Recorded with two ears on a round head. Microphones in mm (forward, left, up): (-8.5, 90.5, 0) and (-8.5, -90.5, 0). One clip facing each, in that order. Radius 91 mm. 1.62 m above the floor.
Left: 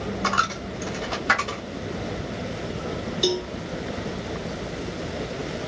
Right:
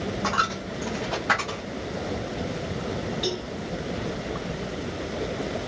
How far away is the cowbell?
About 1.3 m.